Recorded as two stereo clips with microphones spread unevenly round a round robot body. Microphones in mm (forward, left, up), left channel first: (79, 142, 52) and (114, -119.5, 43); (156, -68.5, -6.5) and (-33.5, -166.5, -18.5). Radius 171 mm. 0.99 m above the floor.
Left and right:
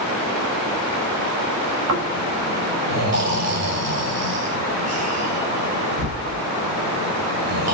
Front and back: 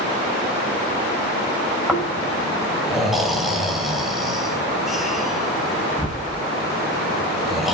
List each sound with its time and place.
1.9 s snoring: 65° right, 6 m